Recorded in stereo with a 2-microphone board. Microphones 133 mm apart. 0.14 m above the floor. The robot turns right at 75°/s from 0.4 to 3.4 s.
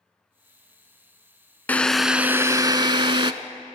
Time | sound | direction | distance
1.7 | a drill | 160° left | 0.7 m